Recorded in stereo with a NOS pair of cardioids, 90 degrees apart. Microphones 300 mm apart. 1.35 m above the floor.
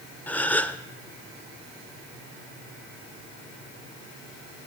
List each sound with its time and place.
0.3 s a gasp: 5° left, 0.7 m